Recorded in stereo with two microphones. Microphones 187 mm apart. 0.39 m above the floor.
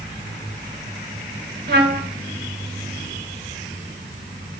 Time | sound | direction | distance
1.7 | a trumpet | 65° right (ahead or behind) | 0.9 m